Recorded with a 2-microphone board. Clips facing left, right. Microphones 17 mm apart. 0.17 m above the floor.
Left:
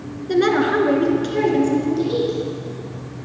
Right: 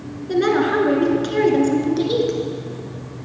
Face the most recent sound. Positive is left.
turn(degrees=-40)  # may be behind; listen again after turning